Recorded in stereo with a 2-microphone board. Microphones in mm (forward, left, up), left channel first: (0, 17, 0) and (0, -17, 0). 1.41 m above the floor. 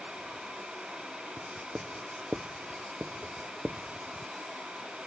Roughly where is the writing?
Right.